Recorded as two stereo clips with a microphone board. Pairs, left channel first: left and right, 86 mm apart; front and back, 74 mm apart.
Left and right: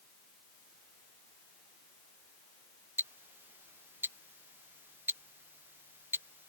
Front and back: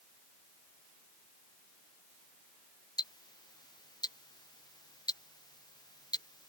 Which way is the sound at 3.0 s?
25° right.